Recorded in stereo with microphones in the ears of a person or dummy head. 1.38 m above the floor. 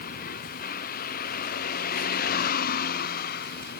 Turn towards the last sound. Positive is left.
turn(degrees=60)  # may be behind; listen again after turning